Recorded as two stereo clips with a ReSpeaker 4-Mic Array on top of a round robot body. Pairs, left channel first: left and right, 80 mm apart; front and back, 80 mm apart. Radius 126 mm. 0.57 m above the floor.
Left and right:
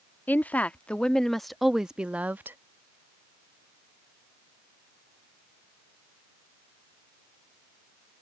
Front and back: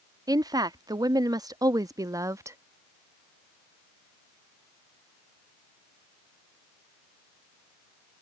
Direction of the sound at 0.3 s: 155° left.